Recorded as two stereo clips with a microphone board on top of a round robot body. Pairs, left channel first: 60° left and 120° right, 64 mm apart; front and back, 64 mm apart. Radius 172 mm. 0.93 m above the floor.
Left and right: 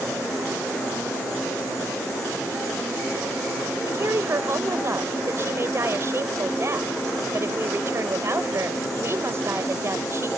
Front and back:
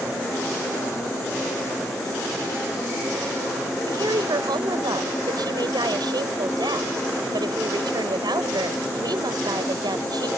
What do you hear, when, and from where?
3.9 s a woman speaking: 170° right